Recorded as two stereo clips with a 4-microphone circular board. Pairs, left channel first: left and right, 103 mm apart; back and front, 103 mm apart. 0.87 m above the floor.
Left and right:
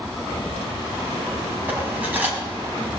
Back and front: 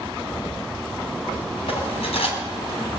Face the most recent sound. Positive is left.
turn(degrees=-165)